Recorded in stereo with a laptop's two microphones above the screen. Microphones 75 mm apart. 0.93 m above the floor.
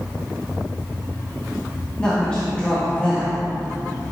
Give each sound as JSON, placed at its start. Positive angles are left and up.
{"t": 2.0, "sound": "a woman speaking", "side_deg": 15, "distance_m": 1.6}